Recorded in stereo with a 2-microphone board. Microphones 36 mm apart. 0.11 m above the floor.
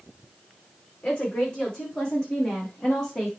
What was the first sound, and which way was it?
A woman speaking, 30° left (ahead or behind).